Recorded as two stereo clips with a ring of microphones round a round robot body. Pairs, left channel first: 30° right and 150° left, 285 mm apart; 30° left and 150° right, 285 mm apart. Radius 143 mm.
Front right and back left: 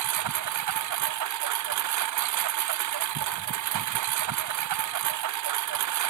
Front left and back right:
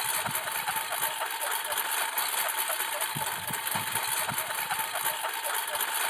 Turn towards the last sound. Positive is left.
turn(degrees=120)